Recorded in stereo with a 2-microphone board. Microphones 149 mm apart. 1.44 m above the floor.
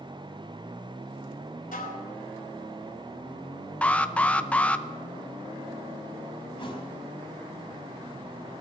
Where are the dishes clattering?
65° left (ahead or behind), 4 m.